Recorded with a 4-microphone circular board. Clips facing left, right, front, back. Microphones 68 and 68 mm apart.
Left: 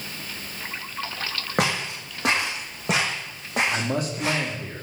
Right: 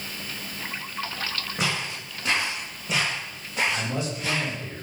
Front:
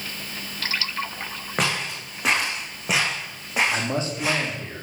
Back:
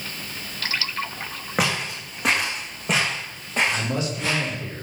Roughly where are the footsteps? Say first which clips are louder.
Left 5 dB, back 1 dB; left.